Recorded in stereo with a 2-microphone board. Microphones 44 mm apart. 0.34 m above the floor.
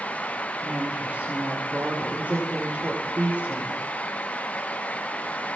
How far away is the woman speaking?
About 6.5 m.